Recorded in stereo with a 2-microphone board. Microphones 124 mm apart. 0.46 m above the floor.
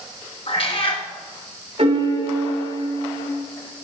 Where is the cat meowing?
50° left (ahead or behind), 1.7 m.